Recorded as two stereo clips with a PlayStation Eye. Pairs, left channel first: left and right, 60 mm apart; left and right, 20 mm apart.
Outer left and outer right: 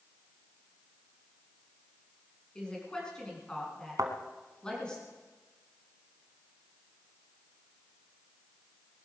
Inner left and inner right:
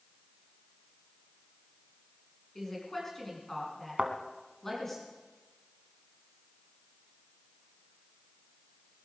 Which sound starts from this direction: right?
A thud, at 4.0 s.